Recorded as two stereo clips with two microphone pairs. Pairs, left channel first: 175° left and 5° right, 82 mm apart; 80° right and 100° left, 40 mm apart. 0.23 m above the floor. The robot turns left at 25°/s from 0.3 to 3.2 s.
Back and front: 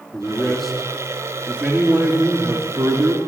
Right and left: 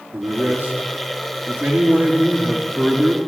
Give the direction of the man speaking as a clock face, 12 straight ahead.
9 o'clock.